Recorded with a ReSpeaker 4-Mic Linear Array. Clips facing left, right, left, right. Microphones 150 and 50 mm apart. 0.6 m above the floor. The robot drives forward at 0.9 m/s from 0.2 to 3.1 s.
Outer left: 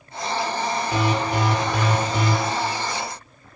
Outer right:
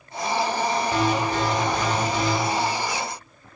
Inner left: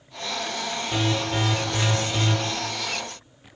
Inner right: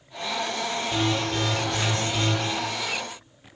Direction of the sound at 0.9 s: 20° left (ahead or behind).